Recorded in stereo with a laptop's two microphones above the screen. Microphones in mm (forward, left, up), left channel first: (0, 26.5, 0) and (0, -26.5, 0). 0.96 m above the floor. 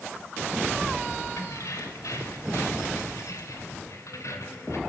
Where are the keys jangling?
75° left (ahead or behind), 3.5 m; by 4.8 s 70° left (ahead or behind), 3 m.